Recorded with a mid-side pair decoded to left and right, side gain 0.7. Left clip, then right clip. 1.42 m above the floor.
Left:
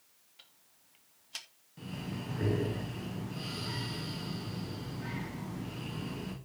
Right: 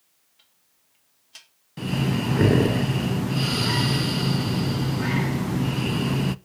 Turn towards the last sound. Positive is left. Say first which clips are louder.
# right 16 dB
turn(degrees=-55)